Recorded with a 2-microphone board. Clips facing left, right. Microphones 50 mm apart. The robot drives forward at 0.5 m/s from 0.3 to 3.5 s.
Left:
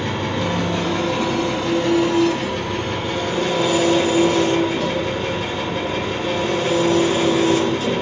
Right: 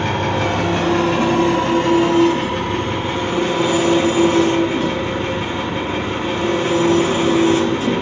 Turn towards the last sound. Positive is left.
turn(degrees=-35)  # may be behind; listen again after turning